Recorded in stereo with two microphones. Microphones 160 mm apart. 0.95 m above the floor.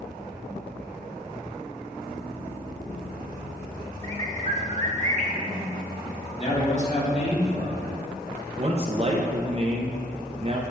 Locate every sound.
4.0 s a bird: 50° right (ahead or behind), 1.0 m
6.4 s a man speaking: 45° left (ahead or behind), 2.5 m
8.6 s a man speaking: 40° right (ahead or behind), 0.6 m